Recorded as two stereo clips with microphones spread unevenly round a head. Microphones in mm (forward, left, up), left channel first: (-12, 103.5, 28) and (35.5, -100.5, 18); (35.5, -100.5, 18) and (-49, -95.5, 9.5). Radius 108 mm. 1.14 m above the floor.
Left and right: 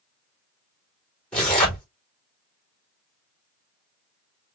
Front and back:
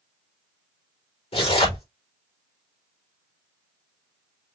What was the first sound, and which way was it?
Tearing paper, 15° left.